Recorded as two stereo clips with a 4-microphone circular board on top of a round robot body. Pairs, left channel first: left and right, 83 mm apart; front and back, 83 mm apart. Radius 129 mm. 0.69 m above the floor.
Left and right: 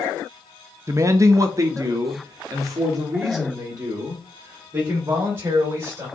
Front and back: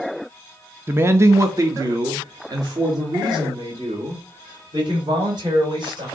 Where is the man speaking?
130° right, 0.8 m; by 6.1 s 140° right, 3.5 m.